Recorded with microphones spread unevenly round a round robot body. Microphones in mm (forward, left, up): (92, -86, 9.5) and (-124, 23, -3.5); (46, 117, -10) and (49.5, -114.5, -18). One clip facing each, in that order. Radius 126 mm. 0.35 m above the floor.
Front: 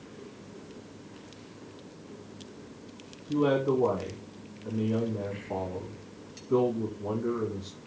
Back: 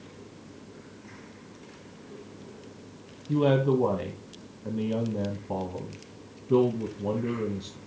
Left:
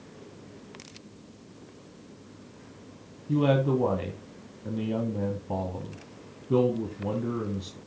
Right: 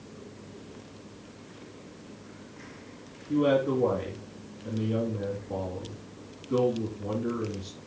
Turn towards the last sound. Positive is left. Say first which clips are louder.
# back 2 dB, even
turn(degrees=110)